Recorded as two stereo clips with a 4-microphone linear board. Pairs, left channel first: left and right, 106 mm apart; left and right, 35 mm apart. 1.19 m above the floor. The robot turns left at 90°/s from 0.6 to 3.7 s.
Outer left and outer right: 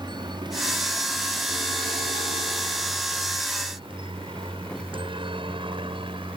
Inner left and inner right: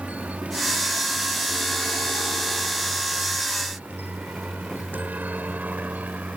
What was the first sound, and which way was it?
A helicopter, 45° right (ahead or behind).